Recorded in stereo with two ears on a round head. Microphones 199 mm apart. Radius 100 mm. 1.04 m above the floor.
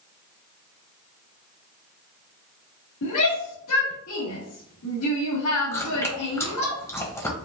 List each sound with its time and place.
3.0 s a shout: 80° left, 1.8 m
5.7 s chewing: 15° left (ahead or behind), 1.3 m